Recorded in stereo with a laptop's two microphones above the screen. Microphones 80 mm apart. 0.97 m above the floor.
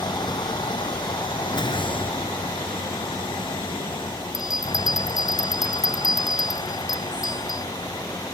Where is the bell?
5° right (ahead or behind).